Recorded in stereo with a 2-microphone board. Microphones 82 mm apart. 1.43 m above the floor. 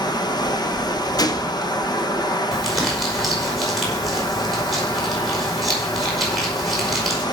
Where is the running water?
55° left (ahead or behind), 1.0 m.